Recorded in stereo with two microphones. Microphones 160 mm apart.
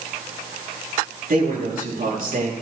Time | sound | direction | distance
1.3 | a man speaking | 65° right (ahead or behind) | 6.5 m